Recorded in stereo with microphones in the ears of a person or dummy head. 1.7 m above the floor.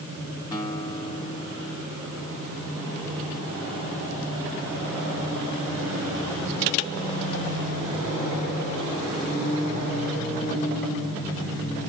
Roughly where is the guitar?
Left.